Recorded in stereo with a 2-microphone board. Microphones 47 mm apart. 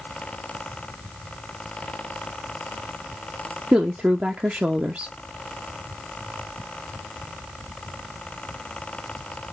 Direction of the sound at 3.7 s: 30° right (ahead or behind).